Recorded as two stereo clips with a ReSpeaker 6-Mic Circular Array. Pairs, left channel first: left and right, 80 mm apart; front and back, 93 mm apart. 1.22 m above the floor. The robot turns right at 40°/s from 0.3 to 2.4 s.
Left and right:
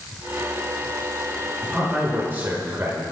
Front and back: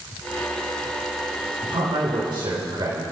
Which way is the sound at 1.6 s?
175° left.